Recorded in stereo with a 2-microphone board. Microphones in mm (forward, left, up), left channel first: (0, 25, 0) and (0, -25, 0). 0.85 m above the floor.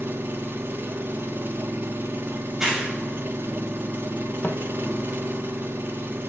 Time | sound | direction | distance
0.0 | an engine running | 45° right (ahead or behind) | 1.1 m
2.5 | a clap | 10° right (ahead or behind) | 4.5 m
4.4 | footsteps | 35° left (ahead or behind) | 1.3 m